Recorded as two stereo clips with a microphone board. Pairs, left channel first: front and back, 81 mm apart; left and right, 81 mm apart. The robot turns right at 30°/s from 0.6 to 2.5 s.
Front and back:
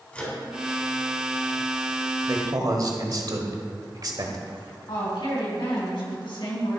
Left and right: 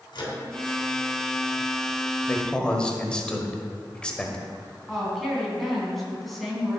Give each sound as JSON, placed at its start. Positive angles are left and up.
{"t": 0.1, "sound": "a microwave", "azimuth_deg": 75, "distance_m": 3.5}
{"t": 2.3, "sound": "a man speaking", "azimuth_deg": 155, "distance_m": 1.3}
{"t": 4.9, "sound": "a woman speaking", "azimuth_deg": 0, "distance_m": 3.5}